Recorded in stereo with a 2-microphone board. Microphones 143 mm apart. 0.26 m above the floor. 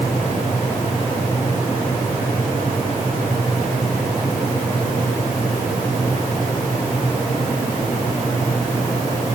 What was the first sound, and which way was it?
Only background noise.